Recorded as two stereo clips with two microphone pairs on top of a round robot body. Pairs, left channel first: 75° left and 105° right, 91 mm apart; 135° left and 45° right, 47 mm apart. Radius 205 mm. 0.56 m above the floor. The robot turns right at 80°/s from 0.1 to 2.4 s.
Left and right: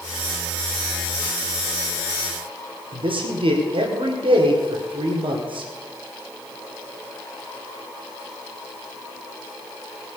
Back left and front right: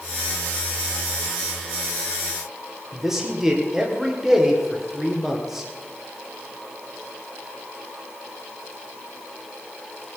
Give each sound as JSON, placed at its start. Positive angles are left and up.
{"t": 2.9, "sound": "a man speaking", "azimuth_deg": -125, "distance_m": 2.5}